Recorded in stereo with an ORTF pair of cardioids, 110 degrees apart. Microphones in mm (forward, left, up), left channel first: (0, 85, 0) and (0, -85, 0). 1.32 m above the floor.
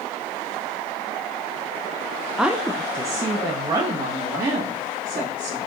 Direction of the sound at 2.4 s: Straight ahead.